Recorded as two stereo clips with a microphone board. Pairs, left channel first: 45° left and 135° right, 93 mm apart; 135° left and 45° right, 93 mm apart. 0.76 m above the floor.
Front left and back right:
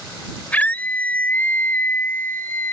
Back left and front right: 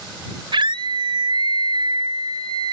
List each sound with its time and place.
0.5 s a scream: 30° right; by 2.7 s 20° right